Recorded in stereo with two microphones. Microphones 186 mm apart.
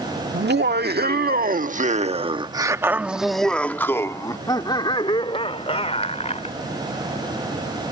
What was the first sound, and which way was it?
Laughter, 70° right (ahead or behind).